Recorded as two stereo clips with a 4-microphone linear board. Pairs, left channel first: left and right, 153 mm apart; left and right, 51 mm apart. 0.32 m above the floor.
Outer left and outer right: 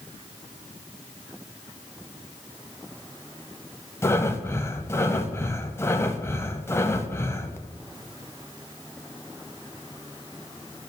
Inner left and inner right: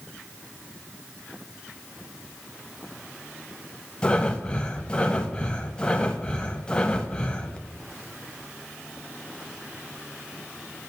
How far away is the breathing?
About 0.7 m.